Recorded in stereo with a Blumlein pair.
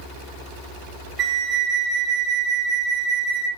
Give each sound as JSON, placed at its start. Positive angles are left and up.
{"t": 1.2, "sound": "a flute", "azimuth_deg": -30, "distance_m": 0.9}